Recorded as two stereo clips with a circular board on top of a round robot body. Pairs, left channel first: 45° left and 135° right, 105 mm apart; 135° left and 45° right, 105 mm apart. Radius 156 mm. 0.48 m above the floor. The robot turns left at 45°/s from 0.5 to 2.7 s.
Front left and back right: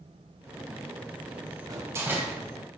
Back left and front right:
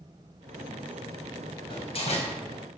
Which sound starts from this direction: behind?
A door slam, at 1.7 s.